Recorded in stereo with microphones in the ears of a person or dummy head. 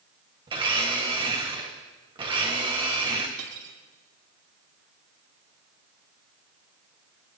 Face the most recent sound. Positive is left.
turn(degrees=-70)  # may be behind; listen again after turning